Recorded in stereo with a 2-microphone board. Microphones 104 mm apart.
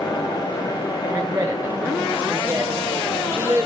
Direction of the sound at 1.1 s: 25° right (ahead or behind).